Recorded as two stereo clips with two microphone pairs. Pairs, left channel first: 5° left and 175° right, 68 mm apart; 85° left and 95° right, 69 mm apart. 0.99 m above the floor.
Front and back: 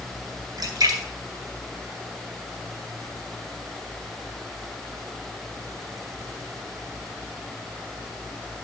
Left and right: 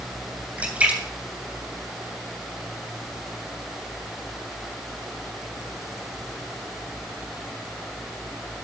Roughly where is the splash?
Behind.